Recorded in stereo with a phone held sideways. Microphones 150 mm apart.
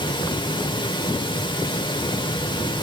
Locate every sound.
0.0 s running water: 30° left (ahead or behind), 1.2 m